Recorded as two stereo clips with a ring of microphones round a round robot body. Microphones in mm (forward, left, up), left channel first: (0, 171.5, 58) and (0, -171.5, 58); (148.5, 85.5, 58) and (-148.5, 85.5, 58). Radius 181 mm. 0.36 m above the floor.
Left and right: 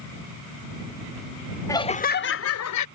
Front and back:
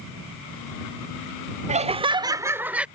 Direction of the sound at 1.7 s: 160° left.